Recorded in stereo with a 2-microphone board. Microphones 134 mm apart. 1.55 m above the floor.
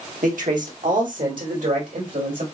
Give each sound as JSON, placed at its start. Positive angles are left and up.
{"t": 0.2, "sound": "a man speaking", "side_deg": -80, "distance_m": 1.7}